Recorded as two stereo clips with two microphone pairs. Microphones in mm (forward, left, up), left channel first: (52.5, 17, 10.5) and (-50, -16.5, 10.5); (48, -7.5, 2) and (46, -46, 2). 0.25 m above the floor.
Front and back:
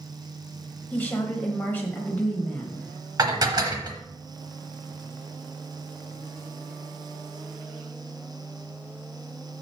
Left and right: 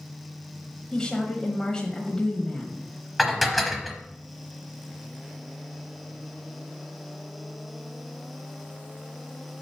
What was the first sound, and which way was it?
A woman speaking, 60° left.